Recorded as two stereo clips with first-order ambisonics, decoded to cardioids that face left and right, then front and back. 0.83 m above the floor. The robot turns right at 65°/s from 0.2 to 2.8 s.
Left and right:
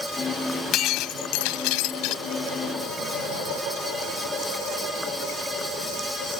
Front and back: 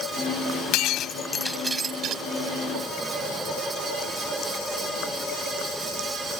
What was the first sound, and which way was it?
Breaking glass, 35° left.